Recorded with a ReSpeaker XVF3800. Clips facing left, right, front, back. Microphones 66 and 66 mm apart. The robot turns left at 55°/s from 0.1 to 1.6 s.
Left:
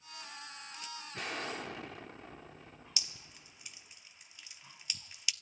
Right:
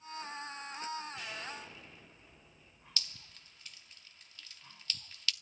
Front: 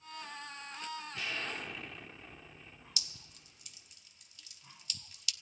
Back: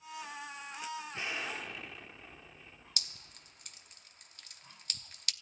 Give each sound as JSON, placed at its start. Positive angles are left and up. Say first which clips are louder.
{"t": 1.1, "sound": "an explosion", "louder": "left 4 dB, even", "azimuth_deg": 120, "distance_m": 1.4}
{"t": 3.0, "sound": "dripping", "louder": "right 5 dB, back 5 dB", "azimuth_deg": 160, "distance_m": 0.8}